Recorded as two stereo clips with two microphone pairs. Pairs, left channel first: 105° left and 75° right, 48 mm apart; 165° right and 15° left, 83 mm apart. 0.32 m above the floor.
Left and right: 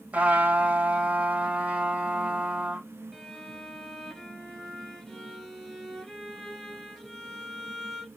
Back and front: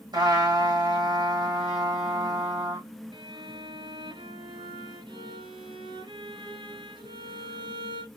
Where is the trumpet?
15° right, 3.5 m.